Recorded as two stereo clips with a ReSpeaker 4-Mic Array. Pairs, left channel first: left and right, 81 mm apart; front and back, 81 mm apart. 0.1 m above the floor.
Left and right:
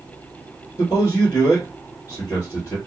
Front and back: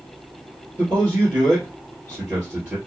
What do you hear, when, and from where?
0.8 s a man speaking: 120° left, 1.8 m